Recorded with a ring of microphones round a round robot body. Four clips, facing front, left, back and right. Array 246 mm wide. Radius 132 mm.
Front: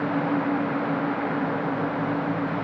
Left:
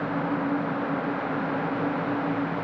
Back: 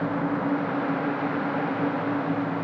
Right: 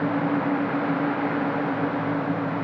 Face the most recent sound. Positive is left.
No sound to turn to.